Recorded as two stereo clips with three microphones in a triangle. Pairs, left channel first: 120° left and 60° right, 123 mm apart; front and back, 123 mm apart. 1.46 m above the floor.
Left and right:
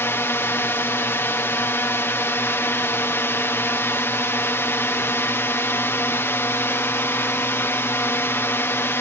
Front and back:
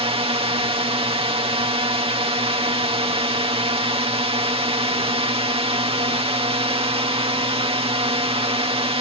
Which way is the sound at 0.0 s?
175° right.